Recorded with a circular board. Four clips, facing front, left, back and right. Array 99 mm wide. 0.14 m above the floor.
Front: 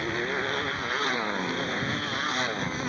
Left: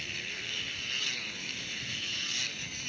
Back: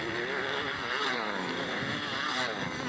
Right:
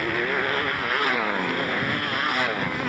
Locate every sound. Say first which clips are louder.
0.0 s a motorcycle: right 20 dB, front 4 dB; 85° right